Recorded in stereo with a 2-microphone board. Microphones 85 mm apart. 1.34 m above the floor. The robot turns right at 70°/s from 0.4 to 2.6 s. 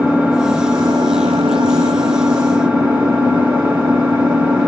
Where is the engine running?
170° right, 1.6 m; by 4.7 s 15° right, 1.6 m.